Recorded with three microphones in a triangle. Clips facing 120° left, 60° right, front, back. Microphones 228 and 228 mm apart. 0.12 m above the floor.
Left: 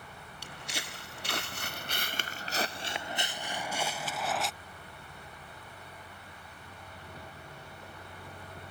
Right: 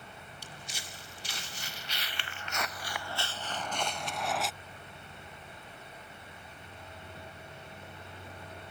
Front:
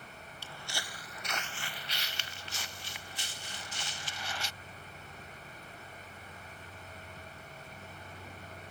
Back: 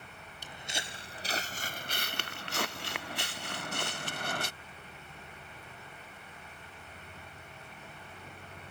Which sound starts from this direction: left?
Footsteps, at 0.4 s.